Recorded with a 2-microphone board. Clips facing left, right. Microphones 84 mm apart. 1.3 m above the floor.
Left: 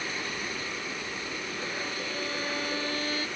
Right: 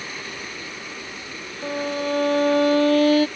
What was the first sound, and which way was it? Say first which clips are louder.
A violin: right 15 dB; 80° right.